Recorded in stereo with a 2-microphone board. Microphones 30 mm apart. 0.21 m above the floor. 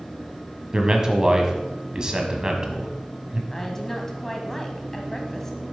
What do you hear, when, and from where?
0.7 s a man speaking: 25° right (ahead or behind), 1.2 m
3.5 s a woman speaking: 15° left (ahead or behind), 1.0 m